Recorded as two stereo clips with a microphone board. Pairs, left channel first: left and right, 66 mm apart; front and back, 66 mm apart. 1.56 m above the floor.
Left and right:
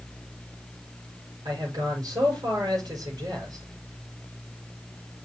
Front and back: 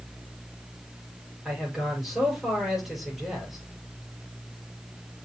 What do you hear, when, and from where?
1.4 s a man speaking: 95° right, 6 m